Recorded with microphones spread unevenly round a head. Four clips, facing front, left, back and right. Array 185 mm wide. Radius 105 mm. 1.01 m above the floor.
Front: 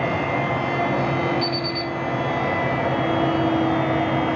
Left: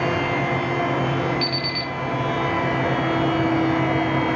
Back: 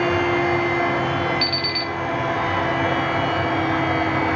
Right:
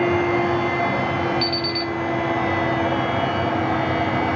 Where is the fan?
35° right, 1.0 m.